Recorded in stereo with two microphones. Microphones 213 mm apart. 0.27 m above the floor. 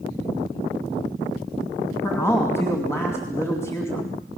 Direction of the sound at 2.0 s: 10° left (ahead or behind).